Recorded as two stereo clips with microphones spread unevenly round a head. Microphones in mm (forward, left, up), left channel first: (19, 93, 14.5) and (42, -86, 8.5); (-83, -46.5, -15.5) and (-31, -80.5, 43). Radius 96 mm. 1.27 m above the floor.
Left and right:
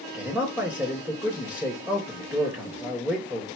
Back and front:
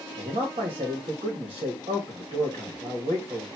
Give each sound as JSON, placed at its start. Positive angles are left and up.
{"t": 0.1, "sound": "a man speaking", "azimuth_deg": -5, "distance_m": 1.2}